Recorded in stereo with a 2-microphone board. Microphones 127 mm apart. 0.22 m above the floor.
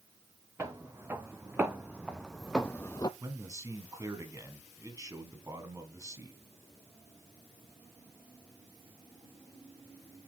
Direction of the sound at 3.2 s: 25° right (ahead or behind).